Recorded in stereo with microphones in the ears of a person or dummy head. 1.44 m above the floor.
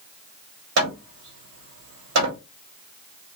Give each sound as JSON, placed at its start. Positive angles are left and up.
{"t": 0.8, "sound": "hammering", "side_deg": -85, "distance_m": 2.5}